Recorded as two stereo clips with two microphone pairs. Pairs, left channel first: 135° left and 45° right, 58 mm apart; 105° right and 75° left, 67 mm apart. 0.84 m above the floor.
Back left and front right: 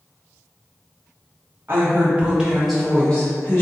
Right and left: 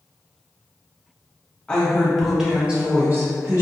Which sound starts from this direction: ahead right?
A woman speaking, at 1.7 s.